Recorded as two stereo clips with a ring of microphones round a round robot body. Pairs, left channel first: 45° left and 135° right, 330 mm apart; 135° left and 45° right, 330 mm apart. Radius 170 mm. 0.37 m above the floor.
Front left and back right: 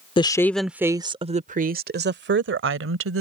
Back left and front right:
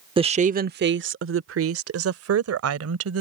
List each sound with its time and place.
0.2 s a woman speaking: straight ahead; by 3.2 s 85° right